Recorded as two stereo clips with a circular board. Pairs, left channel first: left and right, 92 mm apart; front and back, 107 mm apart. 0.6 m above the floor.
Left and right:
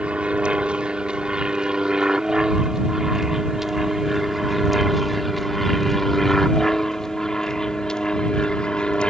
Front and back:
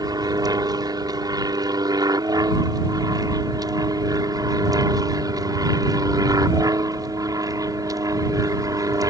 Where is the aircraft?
160° right; by 9.1 s 160° left.